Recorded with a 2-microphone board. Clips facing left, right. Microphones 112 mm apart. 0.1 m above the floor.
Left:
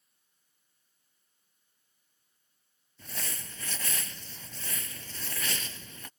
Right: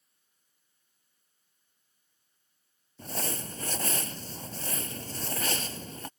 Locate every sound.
3.0 s crumpling: 40° right (ahead or behind)